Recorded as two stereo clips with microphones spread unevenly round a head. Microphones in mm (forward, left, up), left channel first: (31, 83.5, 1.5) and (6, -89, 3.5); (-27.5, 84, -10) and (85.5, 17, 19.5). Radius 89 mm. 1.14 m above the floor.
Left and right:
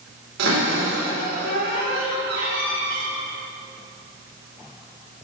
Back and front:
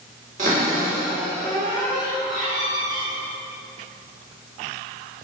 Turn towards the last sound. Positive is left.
turn(degrees=-85)